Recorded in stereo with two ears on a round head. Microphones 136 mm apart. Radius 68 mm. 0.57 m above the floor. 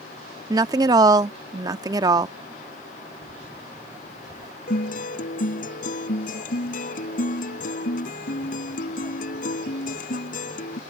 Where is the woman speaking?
25° right (ahead or behind).